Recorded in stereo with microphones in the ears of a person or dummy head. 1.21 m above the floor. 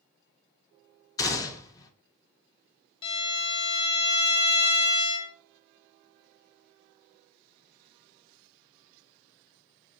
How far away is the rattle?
No rattle in this recording.